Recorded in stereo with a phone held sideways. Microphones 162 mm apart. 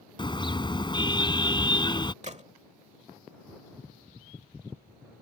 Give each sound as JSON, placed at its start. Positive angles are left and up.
{"t": 0.2, "sound": "a car horn", "side_deg": 30}
{"t": 2.2, "sound": "a gunshot", "side_deg": -45}